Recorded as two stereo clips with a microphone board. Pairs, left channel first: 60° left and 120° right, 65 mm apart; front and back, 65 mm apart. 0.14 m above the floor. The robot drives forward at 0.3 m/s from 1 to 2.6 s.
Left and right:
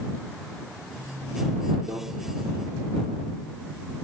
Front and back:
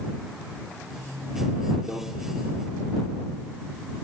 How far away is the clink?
I don't hear a clink.